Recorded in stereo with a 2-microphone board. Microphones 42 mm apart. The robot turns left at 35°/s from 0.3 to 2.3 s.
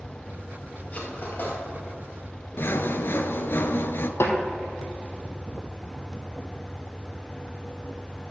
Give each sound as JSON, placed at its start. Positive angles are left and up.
{"t": 0.9, "sound": "cutlery clinking", "side_deg": 35, "distance_m": 2.0}
{"t": 2.6, "sound": "sawing", "side_deg": 65, "distance_m": 0.6}
{"t": 4.2, "sound": "a snare drum", "side_deg": 75, "distance_m": 1.3}